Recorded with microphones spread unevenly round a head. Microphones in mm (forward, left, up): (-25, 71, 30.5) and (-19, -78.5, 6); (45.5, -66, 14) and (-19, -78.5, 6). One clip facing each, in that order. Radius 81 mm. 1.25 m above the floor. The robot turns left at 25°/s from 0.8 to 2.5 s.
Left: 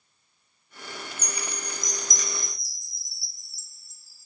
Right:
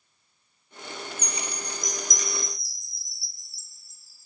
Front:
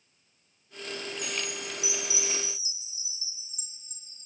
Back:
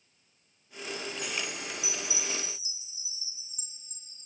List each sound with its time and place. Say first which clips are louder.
1.2 s a chime: right 1 dB, front 1 dB; 75° left, 3 m; by 4.2 s 40° left, 3 m